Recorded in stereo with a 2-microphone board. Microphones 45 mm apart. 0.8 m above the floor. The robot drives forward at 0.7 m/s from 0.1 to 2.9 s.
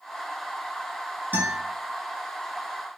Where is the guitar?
50° right (ahead or behind), 2.5 m.